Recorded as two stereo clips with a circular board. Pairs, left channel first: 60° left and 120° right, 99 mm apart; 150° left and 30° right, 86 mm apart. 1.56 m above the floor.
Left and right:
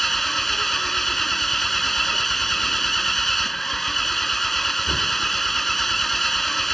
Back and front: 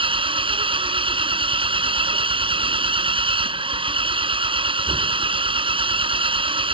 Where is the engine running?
30° right.